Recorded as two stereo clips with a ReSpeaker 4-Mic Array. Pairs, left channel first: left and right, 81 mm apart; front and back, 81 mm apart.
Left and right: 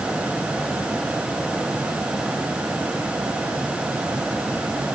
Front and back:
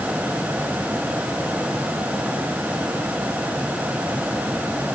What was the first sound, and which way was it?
Only background noise.